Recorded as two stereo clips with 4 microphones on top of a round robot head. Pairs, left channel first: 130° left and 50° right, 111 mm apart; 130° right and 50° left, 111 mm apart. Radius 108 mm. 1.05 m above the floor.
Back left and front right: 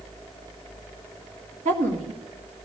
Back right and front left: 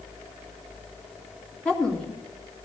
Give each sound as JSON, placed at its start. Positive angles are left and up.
{"t": 1.6, "sound": "a woman speaking", "azimuth_deg": -45, "distance_m": 2.5}